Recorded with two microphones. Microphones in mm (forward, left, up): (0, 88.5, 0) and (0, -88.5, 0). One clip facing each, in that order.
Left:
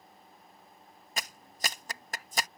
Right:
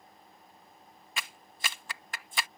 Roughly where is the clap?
Left.